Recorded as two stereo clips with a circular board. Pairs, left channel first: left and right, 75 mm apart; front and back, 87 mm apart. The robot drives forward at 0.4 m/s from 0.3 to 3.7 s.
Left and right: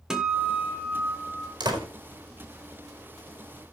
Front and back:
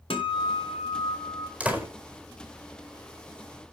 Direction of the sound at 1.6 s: 105° right.